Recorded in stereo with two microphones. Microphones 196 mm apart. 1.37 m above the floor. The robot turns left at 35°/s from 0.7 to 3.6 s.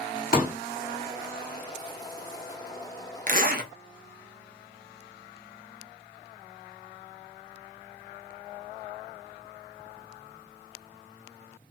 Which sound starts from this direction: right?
A zipper, at 3.3 s.